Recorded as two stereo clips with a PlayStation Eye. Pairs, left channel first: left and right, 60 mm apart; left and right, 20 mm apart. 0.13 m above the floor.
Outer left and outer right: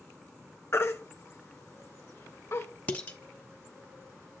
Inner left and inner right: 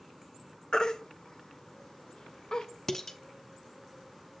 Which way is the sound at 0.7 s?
40° left (ahead or behind).